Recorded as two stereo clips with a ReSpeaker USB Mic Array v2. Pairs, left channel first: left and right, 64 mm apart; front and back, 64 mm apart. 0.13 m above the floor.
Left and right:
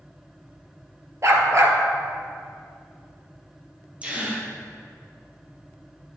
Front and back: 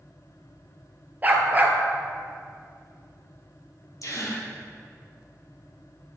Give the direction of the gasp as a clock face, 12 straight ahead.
1 o'clock.